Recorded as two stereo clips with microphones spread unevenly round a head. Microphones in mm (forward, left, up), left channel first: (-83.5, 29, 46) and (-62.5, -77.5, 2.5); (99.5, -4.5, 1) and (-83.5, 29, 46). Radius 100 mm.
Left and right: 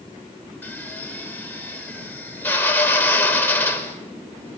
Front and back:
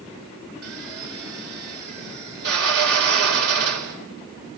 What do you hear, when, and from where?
0.6 s a drill: 170° left, 4.5 m